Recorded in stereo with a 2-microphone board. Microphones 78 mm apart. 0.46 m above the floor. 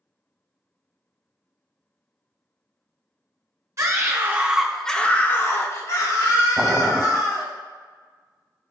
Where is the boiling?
5° right (ahead or behind), 0.6 m.